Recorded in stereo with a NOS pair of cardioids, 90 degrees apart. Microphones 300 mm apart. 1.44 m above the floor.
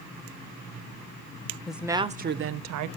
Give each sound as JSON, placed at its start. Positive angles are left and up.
{"t": 1.7, "sound": "a woman speaking", "azimuth_deg": 0, "distance_m": 0.9}